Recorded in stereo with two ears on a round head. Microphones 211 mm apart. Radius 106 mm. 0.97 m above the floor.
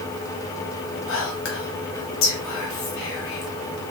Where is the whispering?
60° left (ahead or behind), 1.4 m.